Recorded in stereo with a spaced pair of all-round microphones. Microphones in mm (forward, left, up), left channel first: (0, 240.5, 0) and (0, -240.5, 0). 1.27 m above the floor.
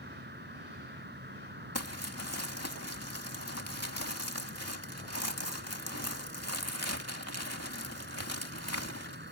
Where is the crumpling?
30° left (ahead or behind).